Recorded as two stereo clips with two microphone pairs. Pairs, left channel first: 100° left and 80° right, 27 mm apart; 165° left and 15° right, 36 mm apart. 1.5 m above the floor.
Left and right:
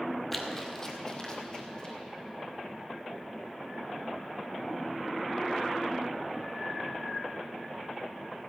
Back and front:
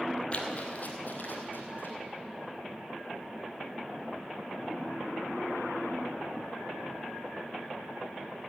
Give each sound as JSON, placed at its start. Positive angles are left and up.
{"t": 0.3, "sound": "running footsteps", "azimuth_deg": -175, "distance_m": 1.7}